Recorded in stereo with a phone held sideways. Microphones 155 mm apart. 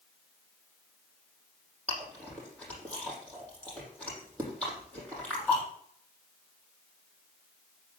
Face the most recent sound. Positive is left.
turn(degrees=5)  # may be behind; listen again after turning